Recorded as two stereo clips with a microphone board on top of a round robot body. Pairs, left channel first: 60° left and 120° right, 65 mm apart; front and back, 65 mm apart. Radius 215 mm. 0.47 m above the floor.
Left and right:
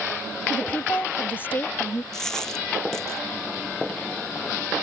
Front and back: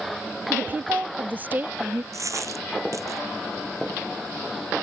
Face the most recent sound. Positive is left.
turn(degrees=140)